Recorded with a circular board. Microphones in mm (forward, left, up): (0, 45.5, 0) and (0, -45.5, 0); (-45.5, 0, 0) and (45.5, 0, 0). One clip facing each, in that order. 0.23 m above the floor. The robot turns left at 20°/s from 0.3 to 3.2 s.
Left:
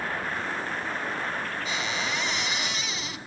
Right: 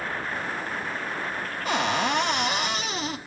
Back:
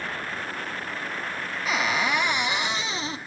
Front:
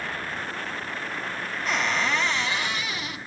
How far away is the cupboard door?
About 0.9 m.